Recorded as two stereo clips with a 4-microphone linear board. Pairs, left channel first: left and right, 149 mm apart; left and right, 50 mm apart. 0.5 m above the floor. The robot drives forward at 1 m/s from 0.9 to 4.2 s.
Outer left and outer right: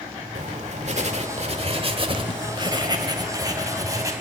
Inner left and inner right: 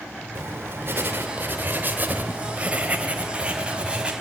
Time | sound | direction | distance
0.3 | writing | 50° right (ahead or behind) | 1.9 m